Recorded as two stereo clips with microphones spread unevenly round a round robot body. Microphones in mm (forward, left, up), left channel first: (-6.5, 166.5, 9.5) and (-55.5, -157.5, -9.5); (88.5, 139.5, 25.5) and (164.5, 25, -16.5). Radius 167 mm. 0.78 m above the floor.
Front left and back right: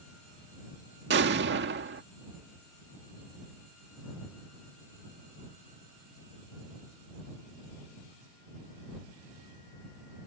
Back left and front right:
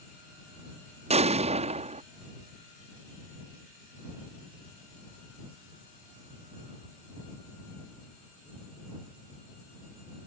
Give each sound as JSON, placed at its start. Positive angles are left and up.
{"t": 1.1, "sound": "an explosion", "azimuth_deg": -45}